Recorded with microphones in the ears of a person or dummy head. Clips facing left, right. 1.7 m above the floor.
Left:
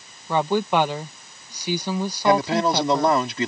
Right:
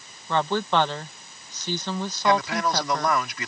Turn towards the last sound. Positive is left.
turn(degrees=30)  # may be behind; listen again after turning